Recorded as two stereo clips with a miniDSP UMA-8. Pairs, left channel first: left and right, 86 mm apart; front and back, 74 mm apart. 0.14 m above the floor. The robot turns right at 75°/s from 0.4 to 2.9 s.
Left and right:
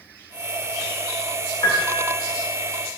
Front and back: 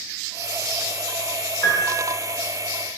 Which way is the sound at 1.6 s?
45° left.